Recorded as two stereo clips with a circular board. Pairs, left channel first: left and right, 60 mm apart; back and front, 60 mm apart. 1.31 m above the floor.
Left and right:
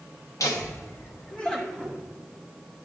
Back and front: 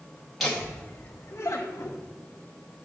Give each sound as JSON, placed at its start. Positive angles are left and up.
{"t": 0.4, "sound": "laughter", "azimuth_deg": 90, "distance_m": 0.8}